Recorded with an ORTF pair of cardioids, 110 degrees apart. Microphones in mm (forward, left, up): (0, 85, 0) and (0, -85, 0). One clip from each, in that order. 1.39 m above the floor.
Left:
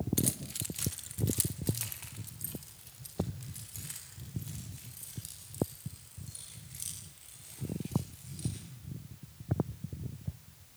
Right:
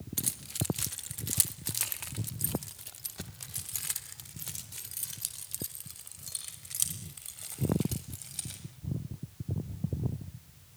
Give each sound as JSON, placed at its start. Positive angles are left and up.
{"t": 0.2, "sound": "keys jangling", "azimuth_deg": -5, "distance_m": 1.8}